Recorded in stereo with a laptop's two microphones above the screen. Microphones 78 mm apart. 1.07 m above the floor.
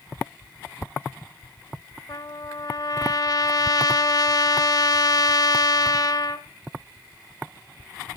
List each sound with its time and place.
2.1 s a trumpet: 50° left (ahead or behind), 1.7 m